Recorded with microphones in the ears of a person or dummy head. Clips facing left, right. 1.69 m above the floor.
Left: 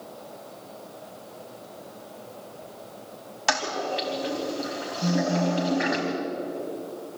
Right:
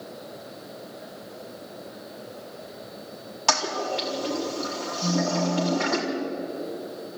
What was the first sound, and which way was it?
A toilet flushing, 15° left (ahead or behind).